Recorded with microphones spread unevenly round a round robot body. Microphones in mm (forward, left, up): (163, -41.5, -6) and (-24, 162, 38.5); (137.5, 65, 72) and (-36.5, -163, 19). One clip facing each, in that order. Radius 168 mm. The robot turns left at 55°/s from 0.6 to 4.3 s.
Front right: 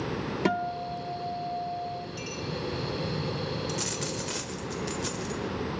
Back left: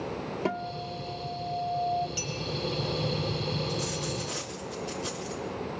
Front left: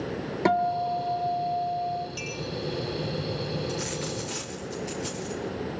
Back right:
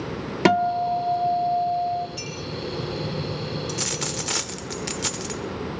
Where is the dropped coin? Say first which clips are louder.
Back left 1 dB, back right 1 dB; 80° right, 1.3 m; by 5.4 s 115° right, 1.3 m.